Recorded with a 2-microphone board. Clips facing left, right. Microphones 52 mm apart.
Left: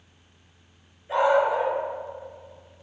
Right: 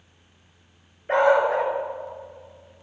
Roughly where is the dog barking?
Right.